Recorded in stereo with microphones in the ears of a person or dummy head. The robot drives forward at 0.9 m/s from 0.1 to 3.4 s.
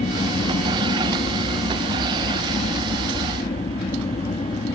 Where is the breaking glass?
No breaking glass in this recording.